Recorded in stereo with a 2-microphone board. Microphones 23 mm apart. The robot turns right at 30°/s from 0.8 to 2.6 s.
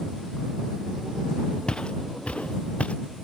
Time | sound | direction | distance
1.7 | footsteps | 50° left (ahead or behind) | ?